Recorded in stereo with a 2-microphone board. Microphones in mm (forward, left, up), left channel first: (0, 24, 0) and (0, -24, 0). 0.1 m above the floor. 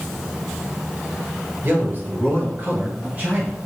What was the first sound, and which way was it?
A man speaking, 40° right (ahead or behind).